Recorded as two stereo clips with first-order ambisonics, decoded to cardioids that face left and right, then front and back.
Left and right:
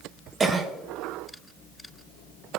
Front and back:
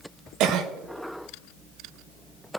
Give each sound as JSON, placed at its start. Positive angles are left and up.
{"t": 0.4, "sound": "a cough", "azimuth_deg": -155, "distance_m": 0.9}